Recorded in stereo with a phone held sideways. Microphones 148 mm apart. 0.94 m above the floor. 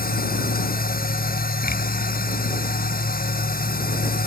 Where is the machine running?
80° left.